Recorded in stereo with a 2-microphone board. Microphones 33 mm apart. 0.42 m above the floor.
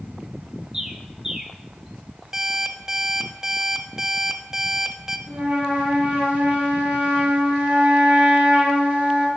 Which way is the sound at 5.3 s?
65° right (ahead or behind).